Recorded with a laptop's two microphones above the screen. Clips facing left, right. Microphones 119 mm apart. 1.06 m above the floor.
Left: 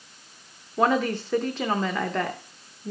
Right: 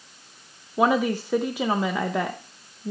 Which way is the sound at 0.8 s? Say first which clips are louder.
Right 1 dB; 10° right (ahead or behind).